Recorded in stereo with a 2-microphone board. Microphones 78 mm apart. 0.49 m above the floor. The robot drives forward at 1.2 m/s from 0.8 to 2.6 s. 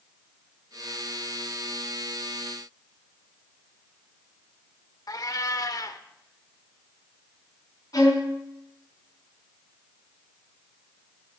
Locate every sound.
5.1 s a cat meowing: 50° left (ahead or behind), 0.7 m
7.9 s a violin: 55° left (ahead or behind), 5 m